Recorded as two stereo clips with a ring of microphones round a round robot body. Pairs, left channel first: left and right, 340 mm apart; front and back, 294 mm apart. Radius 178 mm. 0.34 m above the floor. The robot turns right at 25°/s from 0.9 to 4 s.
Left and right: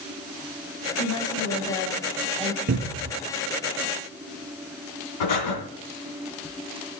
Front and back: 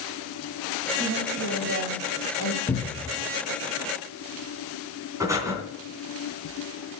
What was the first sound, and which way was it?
A woman speaking, 125° left.